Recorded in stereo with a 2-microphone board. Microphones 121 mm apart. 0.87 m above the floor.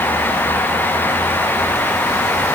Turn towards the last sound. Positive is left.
No sound to turn to.